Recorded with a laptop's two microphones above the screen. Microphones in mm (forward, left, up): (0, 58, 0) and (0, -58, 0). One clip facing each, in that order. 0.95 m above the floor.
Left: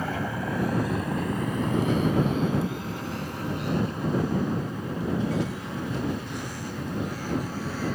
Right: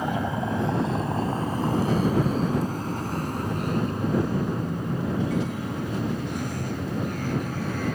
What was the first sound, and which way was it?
A vehicle, 20° right (ahead or behind).